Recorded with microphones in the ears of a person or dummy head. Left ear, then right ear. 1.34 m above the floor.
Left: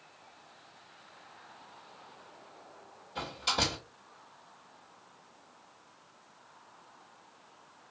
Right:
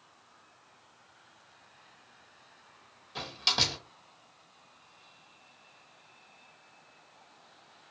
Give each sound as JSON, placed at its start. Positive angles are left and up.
{"t": 3.1, "sound": "a door slam", "side_deg": -50, "distance_m": 2.0}